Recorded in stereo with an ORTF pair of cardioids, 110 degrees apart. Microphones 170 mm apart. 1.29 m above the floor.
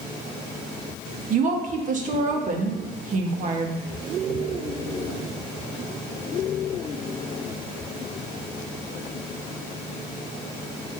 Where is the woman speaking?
50° right, 1.5 m.